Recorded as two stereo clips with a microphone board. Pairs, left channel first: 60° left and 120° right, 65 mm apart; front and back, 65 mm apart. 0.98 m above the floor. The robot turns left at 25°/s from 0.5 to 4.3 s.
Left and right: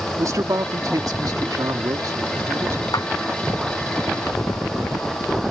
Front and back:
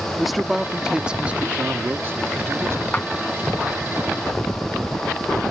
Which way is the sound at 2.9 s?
70° left.